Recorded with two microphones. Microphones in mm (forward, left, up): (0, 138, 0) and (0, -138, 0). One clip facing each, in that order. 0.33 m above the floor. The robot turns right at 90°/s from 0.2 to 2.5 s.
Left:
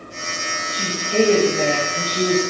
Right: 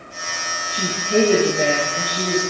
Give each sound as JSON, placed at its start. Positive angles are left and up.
{"t": 0.7, "sound": "a woman speaking", "azimuth_deg": -100, "distance_m": 3.5}